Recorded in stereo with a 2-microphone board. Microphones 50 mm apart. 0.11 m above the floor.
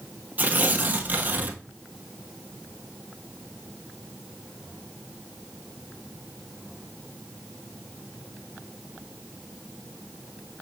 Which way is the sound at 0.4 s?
40° right (ahead or behind).